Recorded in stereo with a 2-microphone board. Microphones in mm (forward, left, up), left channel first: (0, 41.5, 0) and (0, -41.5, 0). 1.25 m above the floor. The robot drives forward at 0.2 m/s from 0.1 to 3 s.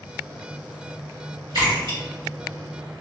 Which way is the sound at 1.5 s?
75° right (ahead or behind).